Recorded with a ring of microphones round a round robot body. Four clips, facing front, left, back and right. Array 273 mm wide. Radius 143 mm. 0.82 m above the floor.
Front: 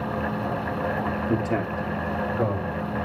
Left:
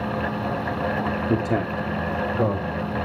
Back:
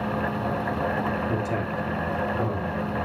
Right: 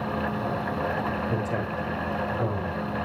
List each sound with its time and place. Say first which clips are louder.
1.3 s a man speaking: left 5 dB, front 2 dB; 65° left, 1.9 m; by 2.8 s 80° left, 4 m